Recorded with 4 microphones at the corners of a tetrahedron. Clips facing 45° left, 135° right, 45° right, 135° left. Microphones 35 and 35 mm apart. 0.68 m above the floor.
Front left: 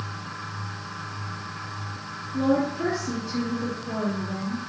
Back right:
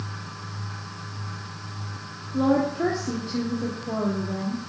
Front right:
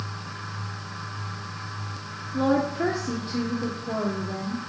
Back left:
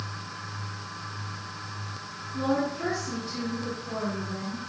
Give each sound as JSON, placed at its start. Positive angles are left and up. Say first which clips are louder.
{"t": 2.3, "sound": "a woman speaking", "louder": "back right 1 dB, front right 4 dB", "azimuth_deg": -85, "distance_m": 1.2}